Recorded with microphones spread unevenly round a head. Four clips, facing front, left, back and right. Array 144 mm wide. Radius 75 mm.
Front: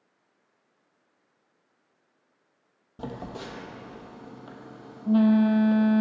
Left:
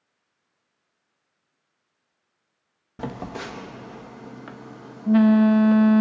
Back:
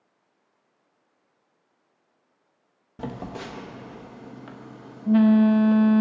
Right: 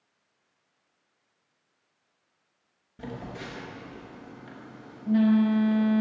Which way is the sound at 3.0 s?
55° left.